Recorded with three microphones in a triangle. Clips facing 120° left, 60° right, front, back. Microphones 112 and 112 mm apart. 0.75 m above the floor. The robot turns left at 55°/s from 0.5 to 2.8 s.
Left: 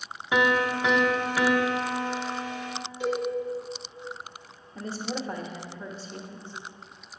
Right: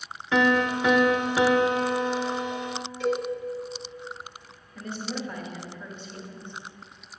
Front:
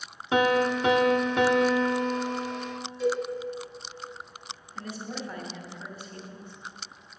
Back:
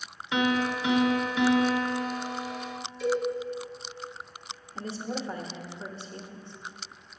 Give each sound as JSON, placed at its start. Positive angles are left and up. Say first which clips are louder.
{"t": 0.3, "sound": "a piano", "louder": "right 2 dB, front 4 dB", "azimuth_deg": 45, "distance_m": 0.6}
{"t": 3.0, "sound": "a cowbell", "louder": "right 2 dB, front 1 dB", "azimuth_deg": 45, "distance_m": 2.0}
{"t": 4.8, "sound": "a woman speaking", "louder": "left 1 dB, back 3 dB", "azimuth_deg": 145, "distance_m": 0.8}